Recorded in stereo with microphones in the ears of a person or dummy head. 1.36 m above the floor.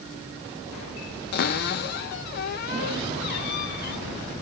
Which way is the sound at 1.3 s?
45° left (ahead or behind).